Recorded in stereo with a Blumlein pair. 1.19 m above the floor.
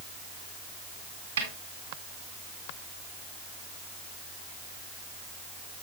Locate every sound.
1.4 s a snare drum: 65° right, 3 m